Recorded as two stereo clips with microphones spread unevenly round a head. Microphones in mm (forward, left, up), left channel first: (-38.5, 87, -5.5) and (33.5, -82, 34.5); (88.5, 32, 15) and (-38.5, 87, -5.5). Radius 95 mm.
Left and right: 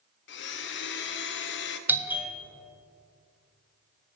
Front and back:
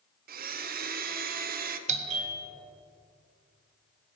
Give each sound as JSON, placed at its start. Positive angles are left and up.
{"t": 0.3, "sound": "a blender", "azimuth_deg": 145, "distance_m": 0.7}
{"t": 1.9, "sound": "a doorbell", "azimuth_deg": -150, "distance_m": 0.8}